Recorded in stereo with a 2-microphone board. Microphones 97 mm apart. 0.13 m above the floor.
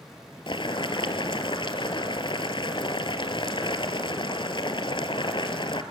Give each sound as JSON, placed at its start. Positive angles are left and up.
{"t": 0.5, "sound": "boiling", "side_deg": 55, "distance_m": 1.1}